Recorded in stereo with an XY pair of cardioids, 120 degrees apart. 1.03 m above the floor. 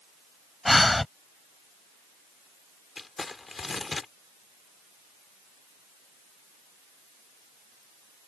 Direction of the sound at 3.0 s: 25° left.